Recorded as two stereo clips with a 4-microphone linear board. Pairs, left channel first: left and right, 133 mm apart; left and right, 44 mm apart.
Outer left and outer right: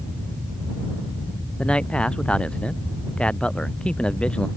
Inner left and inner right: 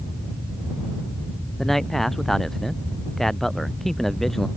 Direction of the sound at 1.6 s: 5° left (ahead or behind).